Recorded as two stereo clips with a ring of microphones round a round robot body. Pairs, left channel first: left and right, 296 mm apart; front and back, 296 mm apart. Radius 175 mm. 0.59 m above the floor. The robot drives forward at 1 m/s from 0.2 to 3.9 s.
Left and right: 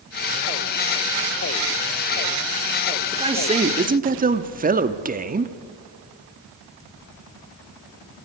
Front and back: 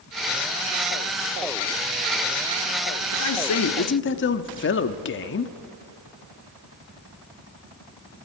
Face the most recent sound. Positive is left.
turn(degrees=-35)